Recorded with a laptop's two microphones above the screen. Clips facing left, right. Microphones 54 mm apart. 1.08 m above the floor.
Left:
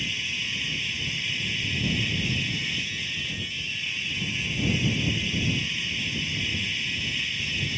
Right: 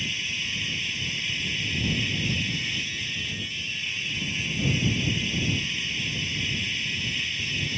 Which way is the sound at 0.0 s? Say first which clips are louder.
Even; centre (ahead or behind).